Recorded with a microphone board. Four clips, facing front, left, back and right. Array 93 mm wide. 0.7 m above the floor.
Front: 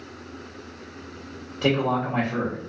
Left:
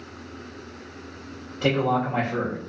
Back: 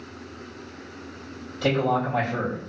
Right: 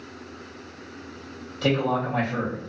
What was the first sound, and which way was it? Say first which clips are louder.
A man speaking: left 1 dB, even; 50° left.